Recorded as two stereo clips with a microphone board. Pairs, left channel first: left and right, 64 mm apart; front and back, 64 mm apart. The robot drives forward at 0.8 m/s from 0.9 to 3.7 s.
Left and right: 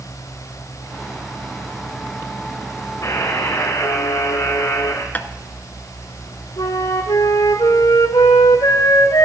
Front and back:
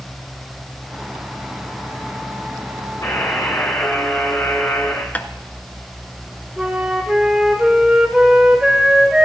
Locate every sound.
3.0 s a buzzer: 45° left, 5.5 m; by 5.0 s 50° left, 5 m
5.2 s tapping: 50° left, 0.7 m
6.6 s a flute: 95° left, 2 m